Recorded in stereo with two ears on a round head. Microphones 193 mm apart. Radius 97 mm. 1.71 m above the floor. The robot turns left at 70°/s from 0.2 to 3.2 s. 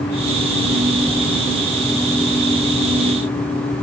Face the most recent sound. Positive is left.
No sound to turn to.